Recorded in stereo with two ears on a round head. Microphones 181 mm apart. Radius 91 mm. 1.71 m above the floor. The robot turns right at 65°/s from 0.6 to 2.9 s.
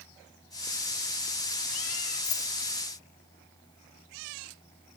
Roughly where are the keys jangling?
Left.